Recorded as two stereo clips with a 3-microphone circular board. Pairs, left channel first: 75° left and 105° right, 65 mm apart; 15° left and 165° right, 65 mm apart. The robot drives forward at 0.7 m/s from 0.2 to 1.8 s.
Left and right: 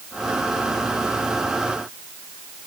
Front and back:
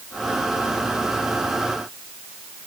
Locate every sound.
Only background noise.